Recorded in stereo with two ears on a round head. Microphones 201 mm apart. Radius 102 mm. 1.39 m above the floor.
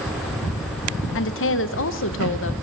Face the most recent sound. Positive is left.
turn(degrees=55)  # may be behind; listen again after turning